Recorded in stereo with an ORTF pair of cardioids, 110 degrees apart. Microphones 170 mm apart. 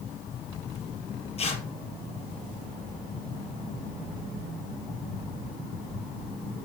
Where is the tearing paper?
35° left, 4 m.